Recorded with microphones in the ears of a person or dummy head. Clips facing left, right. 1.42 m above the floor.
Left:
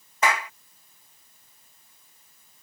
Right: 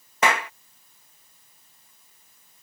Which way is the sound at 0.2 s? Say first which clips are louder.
Right 2 dB; 55° right (ahead or behind).